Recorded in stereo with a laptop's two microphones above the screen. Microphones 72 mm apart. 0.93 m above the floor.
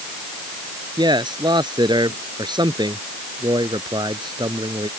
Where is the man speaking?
90° right.